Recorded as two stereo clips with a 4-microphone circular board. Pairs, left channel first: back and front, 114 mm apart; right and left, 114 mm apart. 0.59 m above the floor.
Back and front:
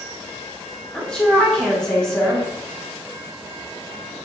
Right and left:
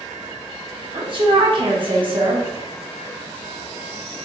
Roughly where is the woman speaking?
Left.